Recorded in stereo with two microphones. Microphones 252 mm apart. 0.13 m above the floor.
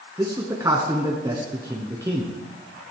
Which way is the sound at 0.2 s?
15° right (ahead or behind).